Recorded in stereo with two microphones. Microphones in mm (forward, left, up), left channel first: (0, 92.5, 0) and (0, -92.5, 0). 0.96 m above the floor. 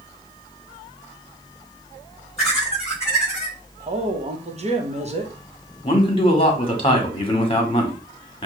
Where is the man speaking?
30° left (ahead or behind), 1.2 m.